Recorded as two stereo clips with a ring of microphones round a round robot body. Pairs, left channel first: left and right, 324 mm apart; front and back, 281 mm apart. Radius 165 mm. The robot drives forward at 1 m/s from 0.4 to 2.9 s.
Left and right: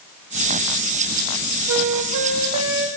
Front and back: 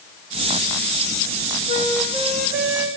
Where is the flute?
60° right, 0.9 m; by 2.9 s 145° right, 1.1 m.